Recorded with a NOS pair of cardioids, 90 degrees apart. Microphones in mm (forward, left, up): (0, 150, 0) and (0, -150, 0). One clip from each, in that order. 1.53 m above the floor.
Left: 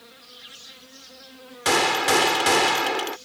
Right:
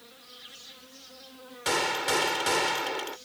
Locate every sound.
0.0 s an insect: 25° left
1.6 s a gunshot: 50° left